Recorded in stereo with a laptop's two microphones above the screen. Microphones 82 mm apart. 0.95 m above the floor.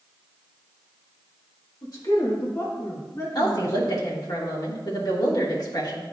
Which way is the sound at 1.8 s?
50° left (ahead or behind).